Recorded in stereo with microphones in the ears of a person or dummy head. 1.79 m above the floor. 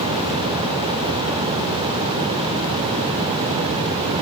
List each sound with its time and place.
Only background noise.